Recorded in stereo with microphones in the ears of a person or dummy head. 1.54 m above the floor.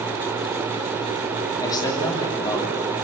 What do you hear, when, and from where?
1.6 s a man speaking: 20° left (ahead or behind), 3.5 m